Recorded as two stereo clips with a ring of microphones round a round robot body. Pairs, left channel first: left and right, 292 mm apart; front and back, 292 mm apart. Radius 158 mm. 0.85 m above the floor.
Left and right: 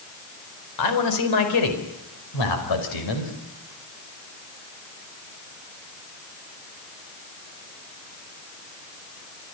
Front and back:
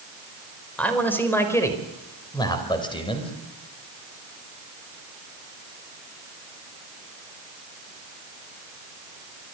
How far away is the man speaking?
About 4 m.